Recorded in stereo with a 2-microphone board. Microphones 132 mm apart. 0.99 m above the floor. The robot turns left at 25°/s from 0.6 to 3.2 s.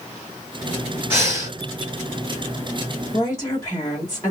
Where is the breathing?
15° right (ahead or behind), 1.8 m; by 1.6 s 25° right (ahead or behind), 1.8 m.